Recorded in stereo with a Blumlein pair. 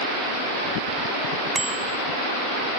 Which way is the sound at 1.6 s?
10° right.